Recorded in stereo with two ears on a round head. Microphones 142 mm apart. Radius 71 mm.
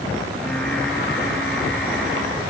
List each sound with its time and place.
0.3 s singing: 5° left (ahead or behind), 6 m